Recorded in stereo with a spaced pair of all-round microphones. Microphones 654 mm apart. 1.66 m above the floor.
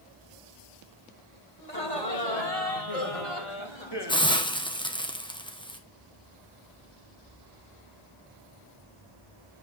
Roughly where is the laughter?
Left.